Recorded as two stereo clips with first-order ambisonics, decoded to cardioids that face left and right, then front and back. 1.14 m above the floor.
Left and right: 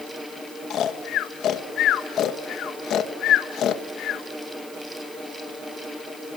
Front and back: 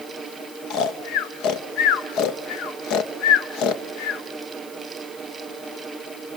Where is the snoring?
40° left, 1.2 m.